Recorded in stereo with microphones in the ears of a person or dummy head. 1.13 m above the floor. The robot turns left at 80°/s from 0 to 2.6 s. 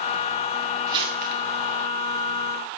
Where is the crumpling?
20° right (ahead or behind), 6.5 m; by 1.4 s 60° right (ahead or behind), 6.5 m.